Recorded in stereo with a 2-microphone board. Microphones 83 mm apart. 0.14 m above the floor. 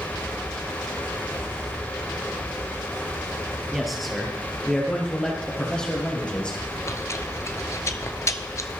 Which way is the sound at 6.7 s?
40° left (ahead or behind).